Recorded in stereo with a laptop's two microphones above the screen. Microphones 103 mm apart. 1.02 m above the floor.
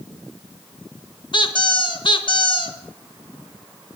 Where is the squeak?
50° left (ahead or behind), 1.0 m.